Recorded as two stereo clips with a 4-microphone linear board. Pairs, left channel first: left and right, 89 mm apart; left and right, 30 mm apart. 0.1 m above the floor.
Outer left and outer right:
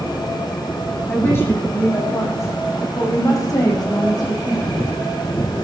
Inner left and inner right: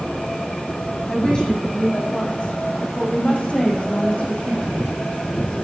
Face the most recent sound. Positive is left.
turn(degrees=55)  # may be behind; listen again after turning